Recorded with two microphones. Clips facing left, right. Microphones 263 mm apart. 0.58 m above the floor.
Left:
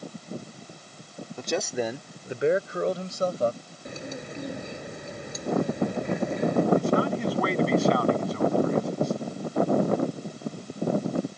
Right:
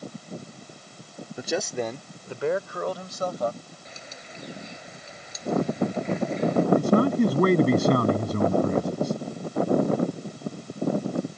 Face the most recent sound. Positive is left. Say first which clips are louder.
# right 4 dB
turn(degrees=-50)  # may be behind; listen again after turning